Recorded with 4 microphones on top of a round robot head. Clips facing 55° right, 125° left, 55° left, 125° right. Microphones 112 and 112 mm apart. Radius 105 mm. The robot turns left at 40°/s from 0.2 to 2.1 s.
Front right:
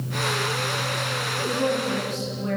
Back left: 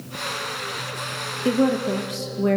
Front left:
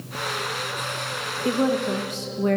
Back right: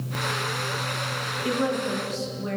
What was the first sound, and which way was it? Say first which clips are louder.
A woman speaking: back left 5 dB, front left 4 dB; 120° left.